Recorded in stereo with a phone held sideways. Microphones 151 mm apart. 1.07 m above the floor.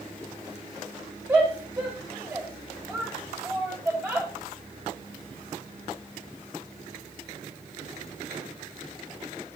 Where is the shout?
15° right (ahead or behind), 6.5 m.